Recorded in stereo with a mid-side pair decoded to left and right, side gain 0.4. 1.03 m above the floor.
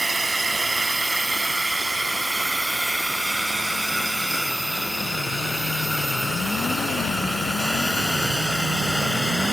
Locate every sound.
0.0 s a drone: 15° right; by 9.5 s 10° left